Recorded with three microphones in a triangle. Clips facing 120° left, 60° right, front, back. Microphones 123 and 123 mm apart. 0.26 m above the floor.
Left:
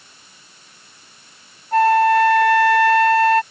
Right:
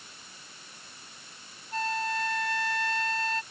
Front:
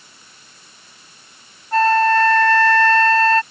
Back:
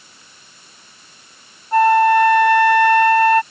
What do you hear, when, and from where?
1.7 s a flute: 105° left